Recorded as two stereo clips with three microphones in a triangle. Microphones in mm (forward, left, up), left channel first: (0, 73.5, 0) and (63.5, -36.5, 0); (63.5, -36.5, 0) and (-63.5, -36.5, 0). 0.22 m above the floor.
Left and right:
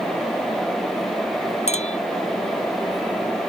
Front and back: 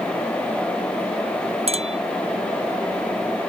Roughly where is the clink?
Behind left.